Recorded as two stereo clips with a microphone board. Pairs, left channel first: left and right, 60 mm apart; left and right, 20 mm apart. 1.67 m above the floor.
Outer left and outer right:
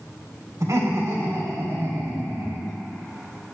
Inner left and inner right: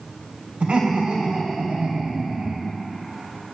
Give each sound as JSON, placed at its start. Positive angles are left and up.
{"t": 0.6, "sound": "laughter", "side_deg": -50, "distance_m": 5.5}